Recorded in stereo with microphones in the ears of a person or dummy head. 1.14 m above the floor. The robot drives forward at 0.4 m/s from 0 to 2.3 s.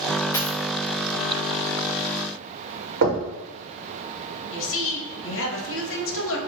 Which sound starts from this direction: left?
A woman speaking, at 4.5 s.